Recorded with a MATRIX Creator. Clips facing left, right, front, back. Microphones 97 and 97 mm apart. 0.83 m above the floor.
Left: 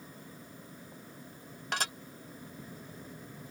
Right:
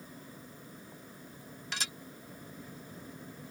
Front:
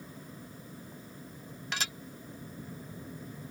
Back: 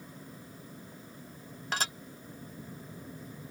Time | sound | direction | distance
1.7 | dishes clattering | 130° left | ?